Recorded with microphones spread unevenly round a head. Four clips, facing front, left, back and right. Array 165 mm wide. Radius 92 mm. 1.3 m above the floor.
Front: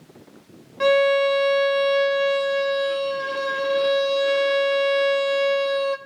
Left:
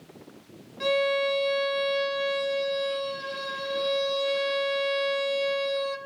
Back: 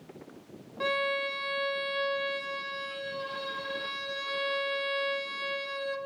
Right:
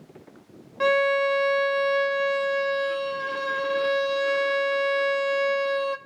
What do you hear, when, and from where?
0.8 s a violin: 35° right, 0.9 m